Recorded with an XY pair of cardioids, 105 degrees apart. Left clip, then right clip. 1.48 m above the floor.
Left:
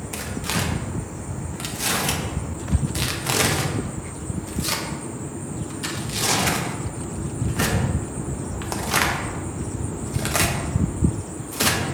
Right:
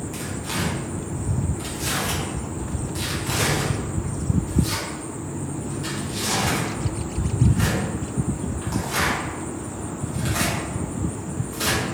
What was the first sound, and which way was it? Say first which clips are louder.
Tearing paper: left 3 dB; 60° left.